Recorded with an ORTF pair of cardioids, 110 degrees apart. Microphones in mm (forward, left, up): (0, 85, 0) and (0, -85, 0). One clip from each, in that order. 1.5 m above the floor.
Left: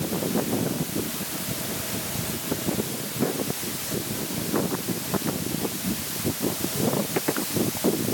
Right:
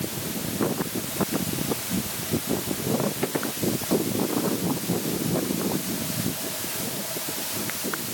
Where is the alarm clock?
No alarm clock in this recording.